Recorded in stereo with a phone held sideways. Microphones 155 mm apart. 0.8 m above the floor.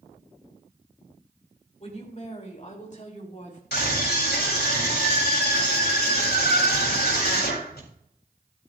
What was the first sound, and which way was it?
A woman speaking, 45° left (ahead or behind).